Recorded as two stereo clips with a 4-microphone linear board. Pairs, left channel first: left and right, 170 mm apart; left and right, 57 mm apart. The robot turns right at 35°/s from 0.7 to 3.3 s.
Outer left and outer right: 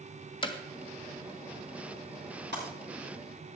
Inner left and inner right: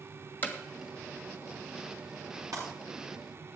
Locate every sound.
0.4 s hammering: 30° left (ahead or behind), 1.5 m
2.5 s breaking glass: 90° right, 9 m; by 2.7 s 85° right, 9 m